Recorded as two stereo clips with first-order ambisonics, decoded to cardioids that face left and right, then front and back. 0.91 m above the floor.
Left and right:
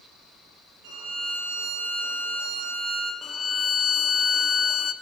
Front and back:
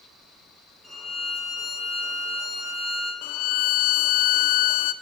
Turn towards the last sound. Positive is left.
turn(degrees=20)